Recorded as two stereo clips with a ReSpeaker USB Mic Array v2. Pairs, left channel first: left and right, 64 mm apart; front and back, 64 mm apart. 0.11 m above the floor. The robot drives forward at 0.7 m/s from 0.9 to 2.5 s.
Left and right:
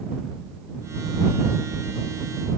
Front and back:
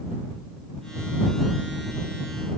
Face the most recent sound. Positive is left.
No sound to turn to.